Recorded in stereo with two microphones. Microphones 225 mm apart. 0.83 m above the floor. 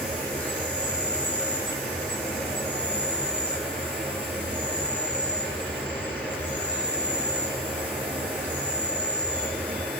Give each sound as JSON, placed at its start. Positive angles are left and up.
{"t": 0.0, "sound": "an insect", "side_deg": 5, "distance_m": 4.0}